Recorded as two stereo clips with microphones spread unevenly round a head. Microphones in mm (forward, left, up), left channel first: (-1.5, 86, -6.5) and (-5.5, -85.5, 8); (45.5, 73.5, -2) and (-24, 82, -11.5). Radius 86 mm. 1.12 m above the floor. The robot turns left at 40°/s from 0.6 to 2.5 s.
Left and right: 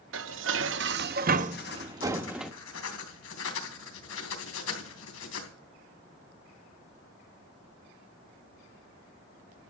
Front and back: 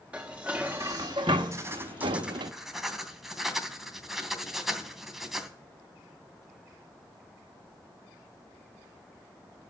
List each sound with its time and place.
0.1 s dishes clattering: 105° right, 1.0 m; by 2.5 s straight behind, 1.0 m
1.5 s writing: 125° left, 3 m; by 5.5 s 85° left, 3 m